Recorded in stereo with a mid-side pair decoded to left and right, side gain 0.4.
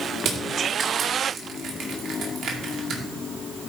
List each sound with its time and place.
0.2 s crushing: 65° right, 2 m